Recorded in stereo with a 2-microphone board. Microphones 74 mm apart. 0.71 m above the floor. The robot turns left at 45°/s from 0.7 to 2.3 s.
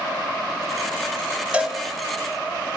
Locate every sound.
1.5 s a cowbell: 15° right (ahead or behind), 0.8 m; by 1.8 s 5° right (ahead or behind), 0.8 m